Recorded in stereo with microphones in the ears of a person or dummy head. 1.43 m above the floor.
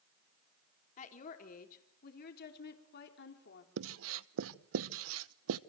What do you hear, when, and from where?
1.0 s a woman speaking: 45° left (ahead or behind), 3.5 m; by 3.7 s 70° left (ahead or behind), 4 m
3.8 s writing: 80° right, 0.8 m